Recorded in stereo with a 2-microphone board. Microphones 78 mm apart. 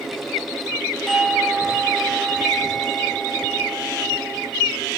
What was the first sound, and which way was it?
A doorbell, centre (ahead or behind).